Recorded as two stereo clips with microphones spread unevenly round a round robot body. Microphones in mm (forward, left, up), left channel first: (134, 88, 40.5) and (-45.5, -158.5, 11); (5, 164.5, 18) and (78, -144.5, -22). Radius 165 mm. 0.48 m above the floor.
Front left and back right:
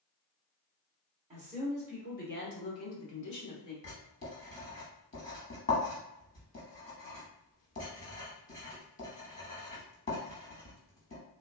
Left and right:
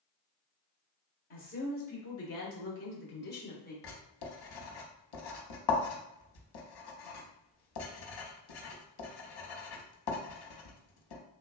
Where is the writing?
120° left, 0.9 m.